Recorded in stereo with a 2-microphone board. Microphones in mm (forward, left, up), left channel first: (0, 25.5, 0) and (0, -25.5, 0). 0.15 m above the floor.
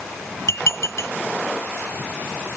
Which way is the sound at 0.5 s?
65° left (ahead or behind).